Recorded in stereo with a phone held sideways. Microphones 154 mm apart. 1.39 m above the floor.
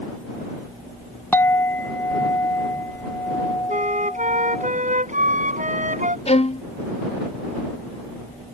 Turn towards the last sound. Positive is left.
turn(degrees=45)  # may be behind; listen again after turning